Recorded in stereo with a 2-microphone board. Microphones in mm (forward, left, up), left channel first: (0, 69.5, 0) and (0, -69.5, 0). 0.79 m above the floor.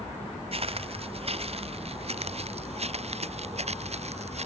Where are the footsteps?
50° right (ahead or behind); by 4.5 s 55° right (ahead or behind).